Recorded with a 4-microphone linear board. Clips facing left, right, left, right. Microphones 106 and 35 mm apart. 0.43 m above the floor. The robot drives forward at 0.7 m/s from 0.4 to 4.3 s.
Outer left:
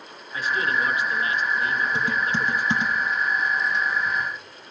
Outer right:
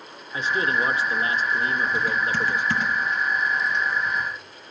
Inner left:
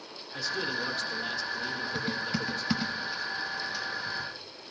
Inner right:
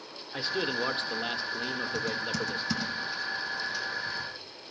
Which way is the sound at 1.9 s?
30° left (ahead or behind).